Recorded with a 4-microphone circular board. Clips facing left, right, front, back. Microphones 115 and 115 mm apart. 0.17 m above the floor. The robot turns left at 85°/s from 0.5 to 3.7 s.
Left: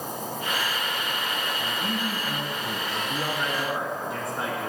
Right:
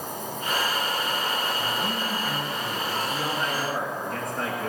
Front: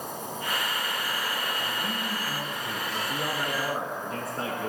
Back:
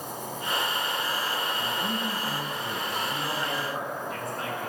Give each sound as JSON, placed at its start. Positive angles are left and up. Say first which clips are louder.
{"t": 0.0, "sound": "an insect", "louder": "left 1 dB, even", "azimuth_deg": 65, "distance_m": 3.5}
{"t": 1.6, "sound": "a man speaking", "louder": "right 1 dB, back 2 dB", "azimuth_deg": -125, "distance_m": 1.1}
{"t": 2.9, "sound": "a man speaking", "louder": "right 1 dB, front 1 dB", "azimuth_deg": 75, "distance_m": 1.2}